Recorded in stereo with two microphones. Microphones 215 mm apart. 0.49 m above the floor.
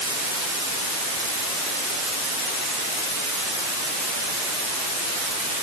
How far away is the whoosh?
I don't hear a whoosh.